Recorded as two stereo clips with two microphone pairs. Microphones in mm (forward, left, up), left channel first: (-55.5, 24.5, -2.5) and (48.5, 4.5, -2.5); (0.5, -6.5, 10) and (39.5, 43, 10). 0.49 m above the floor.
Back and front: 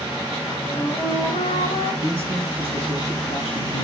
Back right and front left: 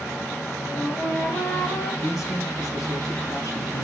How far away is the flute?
About 6 m.